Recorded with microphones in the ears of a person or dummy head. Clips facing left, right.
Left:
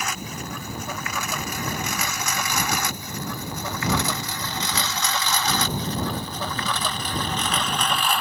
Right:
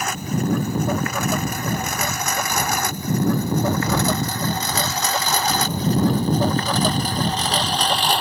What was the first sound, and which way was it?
A lawn mower, 45° right (ahead or behind).